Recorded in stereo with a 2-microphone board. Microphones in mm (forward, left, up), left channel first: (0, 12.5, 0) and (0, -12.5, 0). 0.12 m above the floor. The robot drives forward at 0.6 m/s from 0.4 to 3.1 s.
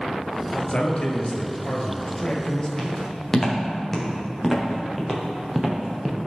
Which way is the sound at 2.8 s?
20° left (ahead or behind).